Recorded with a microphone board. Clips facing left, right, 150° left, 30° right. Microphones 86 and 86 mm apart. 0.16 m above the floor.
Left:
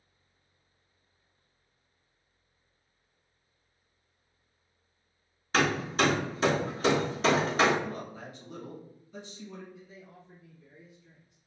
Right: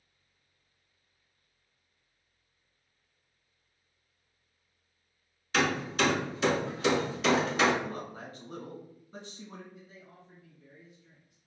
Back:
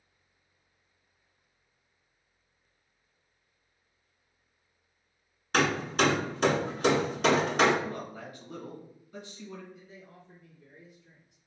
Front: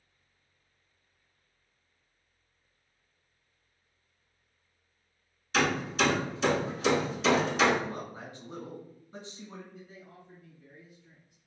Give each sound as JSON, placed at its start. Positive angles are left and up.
{"t": 5.5, "sound": "hammering", "azimuth_deg": 135, "distance_m": 0.8}
{"t": 7.8, "sound": "a man speaking", "azimuth_deg": -75, "distance_m": 1.4}
{"t": 9.7, "sound": "a man speaking", "azimuth_deg": -55, "distance_m": 1.4}